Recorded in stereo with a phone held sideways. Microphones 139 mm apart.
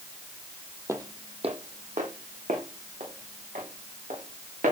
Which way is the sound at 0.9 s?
20° right (ahead or behind).